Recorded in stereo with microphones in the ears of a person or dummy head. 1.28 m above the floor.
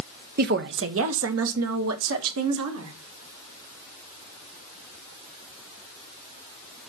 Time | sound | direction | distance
0.4 | a woman speaking | 40° right (ahead or behind) | 0.6 m